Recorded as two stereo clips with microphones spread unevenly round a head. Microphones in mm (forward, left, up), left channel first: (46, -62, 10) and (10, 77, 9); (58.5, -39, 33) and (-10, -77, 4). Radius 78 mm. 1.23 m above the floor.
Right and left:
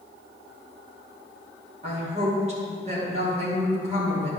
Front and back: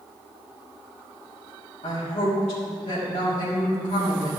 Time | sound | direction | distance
1.8 | a woman speaking | 60° left | 3 m